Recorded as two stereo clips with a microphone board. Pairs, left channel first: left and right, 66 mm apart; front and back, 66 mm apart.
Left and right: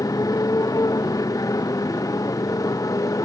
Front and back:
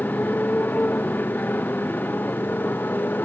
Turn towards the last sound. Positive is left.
turn(degrees=60)